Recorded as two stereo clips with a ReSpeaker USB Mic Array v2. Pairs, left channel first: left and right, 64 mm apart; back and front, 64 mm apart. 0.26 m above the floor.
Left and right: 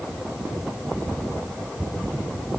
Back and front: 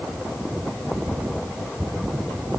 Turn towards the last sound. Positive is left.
No sound to turn to.